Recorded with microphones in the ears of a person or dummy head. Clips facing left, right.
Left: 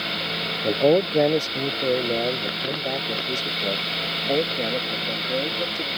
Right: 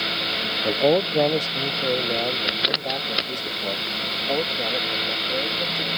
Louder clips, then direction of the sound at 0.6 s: Left 1 dB; 15° left (ahead or behind).